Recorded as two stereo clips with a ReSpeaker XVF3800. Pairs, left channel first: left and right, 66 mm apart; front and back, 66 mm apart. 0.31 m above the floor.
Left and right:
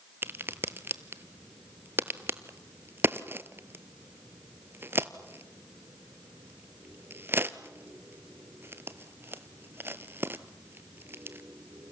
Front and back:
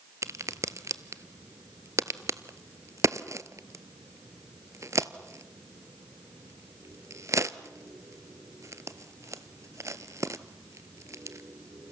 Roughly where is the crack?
Behind right.